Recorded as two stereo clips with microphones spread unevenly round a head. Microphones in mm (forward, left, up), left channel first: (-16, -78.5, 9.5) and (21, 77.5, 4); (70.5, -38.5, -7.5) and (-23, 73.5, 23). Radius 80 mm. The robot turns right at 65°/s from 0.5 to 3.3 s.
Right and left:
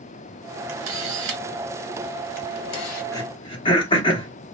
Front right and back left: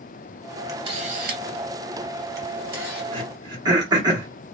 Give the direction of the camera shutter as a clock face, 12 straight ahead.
10 o'clock.